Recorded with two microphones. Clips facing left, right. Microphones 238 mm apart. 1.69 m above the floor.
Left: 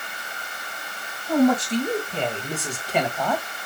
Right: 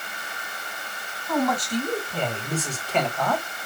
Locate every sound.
1.3 s a man speaking: 30° left (ahead or behind), 2.5 m; by 3.5 s centre (ahead or behind), 1.7 m